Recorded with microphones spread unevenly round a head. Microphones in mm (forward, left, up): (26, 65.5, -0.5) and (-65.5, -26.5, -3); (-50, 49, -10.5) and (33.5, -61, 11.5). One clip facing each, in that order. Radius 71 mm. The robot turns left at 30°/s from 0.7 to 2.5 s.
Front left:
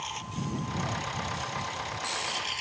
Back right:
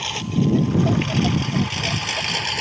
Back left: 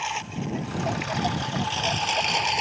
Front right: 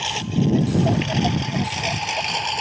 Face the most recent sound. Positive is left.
turn(degrees=-145)